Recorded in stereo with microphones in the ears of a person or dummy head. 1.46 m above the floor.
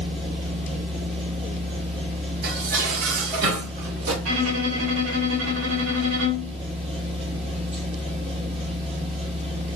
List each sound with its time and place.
0.0 s a machine running: 30° right (ahead or behind), 2 m
2.4 s dishes clattering: 55° right (ahead or behind), 2 m
4.2 s a violin: 85° right, 3 m